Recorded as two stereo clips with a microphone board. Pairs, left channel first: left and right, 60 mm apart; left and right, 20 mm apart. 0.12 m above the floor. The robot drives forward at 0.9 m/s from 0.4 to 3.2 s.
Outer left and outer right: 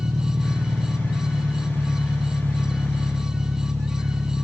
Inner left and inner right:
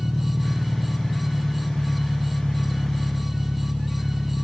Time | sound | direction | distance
0.0 | an engine running | 70° right (ahead or behind) | 3 m